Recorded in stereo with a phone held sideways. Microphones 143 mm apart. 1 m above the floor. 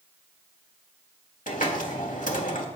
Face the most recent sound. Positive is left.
turn(degrees=65)  # may be behind; listen again after turning